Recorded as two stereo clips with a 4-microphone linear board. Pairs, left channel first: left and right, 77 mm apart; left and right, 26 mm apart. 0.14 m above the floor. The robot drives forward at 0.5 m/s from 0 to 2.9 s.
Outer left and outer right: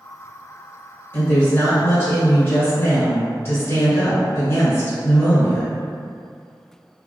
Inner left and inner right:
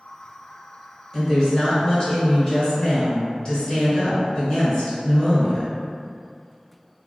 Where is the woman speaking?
30° left (ahead or behind), 1.9 m; by 5.8 s 35° left (ahead or behind), 1.6 m.